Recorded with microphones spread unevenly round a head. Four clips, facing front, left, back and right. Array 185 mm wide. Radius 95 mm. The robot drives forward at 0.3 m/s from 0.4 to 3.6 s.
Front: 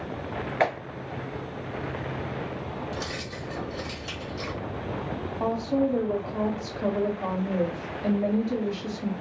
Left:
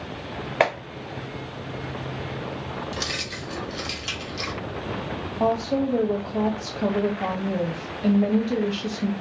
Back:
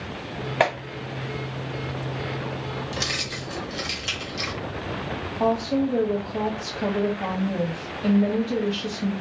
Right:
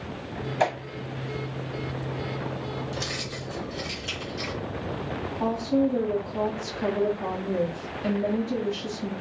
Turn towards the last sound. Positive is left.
turn(degrees=120)